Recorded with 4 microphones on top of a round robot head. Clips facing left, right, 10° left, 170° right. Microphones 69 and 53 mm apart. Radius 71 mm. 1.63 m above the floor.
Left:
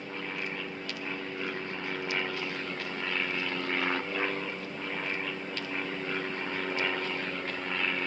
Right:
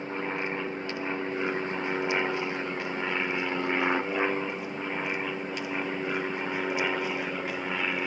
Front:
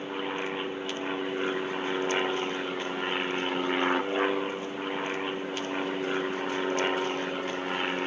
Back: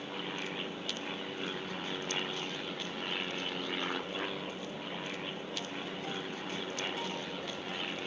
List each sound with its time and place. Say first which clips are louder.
0.0 s an aircraft: right 5 dB, front 7 dB; 40° right; by 8.1 s 15° right